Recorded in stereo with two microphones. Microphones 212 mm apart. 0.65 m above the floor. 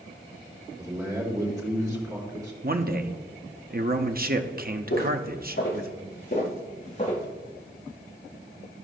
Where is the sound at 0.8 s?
15° right (ahead or behind), 3.5 m.